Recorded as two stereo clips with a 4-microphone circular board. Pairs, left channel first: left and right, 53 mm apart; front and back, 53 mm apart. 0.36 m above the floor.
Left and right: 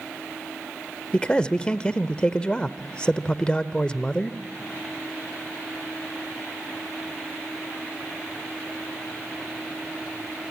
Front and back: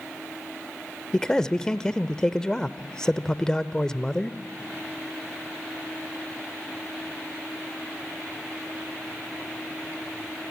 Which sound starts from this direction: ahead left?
A man speaking, at 1.1 s.